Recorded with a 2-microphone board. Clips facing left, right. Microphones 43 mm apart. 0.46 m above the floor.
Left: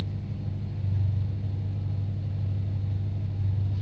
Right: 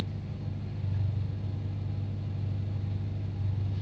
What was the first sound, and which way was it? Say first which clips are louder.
An engine running: left 2 dB; 40° right (ahead or behind).